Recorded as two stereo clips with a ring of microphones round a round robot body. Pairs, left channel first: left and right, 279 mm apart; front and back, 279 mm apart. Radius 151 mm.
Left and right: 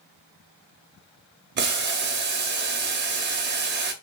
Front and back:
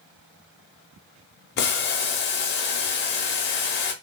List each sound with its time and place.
1.6 s boiling: 45° right, 0.7 m